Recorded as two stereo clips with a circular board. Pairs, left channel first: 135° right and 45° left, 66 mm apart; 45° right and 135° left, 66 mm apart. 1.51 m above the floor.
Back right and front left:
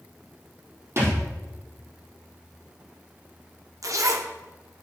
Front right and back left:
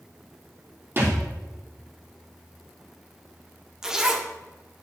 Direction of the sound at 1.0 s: 85° left.